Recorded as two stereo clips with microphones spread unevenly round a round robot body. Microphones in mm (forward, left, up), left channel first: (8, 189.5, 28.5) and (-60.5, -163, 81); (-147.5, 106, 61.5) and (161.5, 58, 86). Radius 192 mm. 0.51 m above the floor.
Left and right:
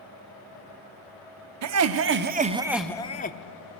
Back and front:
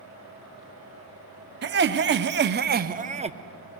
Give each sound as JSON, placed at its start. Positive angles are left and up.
{"t": 1.6, "sound": "laughter", "azimuth_deg": -60, "distance_m": 1.0}